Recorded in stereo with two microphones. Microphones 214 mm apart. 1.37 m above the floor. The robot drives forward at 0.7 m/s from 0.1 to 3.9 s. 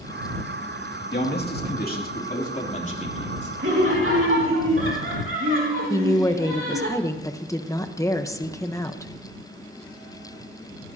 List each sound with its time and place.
1.1 s a man speaking: 50° left (ahead or behind), 2.5 m; by 3.5 s 30° left (ahead or behind), 3.5 m
3.6 s laughter: 65° right (ahead or behind), 2.5 m; by 6.9 s 70° right (ahead or behind), 2.5 m
5.9 s a woman speaking: 15° left (ahead or behind), 1.0 m